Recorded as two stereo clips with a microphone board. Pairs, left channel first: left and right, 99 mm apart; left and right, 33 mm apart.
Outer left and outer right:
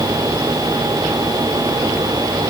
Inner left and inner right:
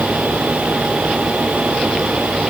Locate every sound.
Only background noise.